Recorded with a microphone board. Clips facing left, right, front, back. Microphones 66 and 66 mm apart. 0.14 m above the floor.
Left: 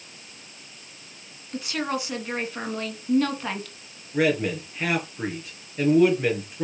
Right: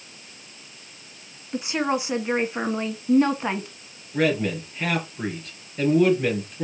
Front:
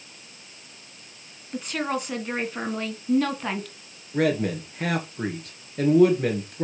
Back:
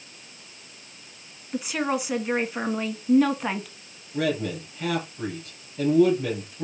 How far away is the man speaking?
About 3 m.